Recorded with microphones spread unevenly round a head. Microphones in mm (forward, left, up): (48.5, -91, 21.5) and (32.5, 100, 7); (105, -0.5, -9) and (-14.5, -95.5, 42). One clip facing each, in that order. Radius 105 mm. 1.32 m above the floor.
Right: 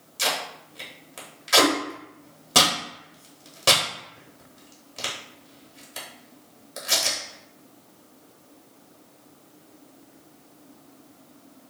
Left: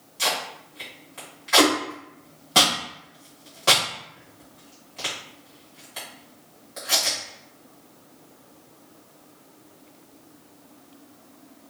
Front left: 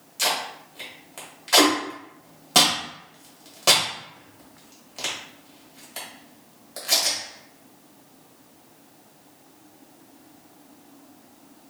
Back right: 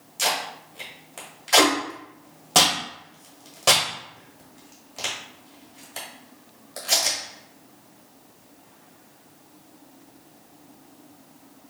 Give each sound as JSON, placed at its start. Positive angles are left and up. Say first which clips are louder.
{"t": 0.2, "sound": "tape being pulled", "louder": "even, even", "azimuth_deg": -65, "distance_m": 1.4}